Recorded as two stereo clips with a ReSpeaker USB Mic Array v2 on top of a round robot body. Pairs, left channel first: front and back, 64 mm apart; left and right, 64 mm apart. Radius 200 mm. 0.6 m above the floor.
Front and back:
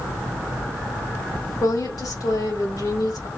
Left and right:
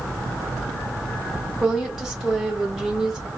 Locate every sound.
1.6 s a woman speaking: 5° right, 2.5 m